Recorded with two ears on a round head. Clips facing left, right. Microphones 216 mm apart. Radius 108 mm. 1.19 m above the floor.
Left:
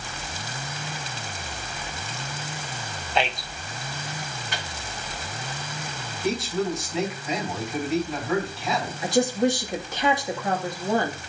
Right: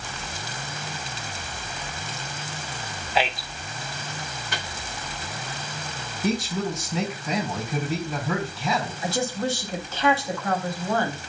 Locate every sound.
3.1 s a man speaking: 5° right (ahead or behind), 1.0 m
4.5 s a microwave: 85° right, 1.8 m
6.2 s a man speaking: 85° right, 4 m
9.0 s a woman speaking: 15° left (ahead or behind), 1.4 m